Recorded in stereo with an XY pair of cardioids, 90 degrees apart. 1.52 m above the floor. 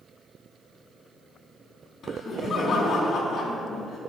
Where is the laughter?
65° left, 4 m.